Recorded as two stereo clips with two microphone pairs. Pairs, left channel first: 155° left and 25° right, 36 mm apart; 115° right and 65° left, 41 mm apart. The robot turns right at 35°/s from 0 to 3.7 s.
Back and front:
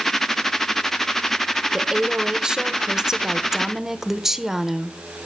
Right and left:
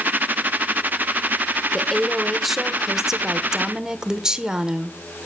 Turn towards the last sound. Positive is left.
turn(degrees=30)